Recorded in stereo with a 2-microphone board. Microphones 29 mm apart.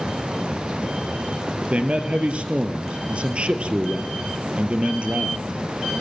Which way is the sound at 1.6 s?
45° right (ahead or behind).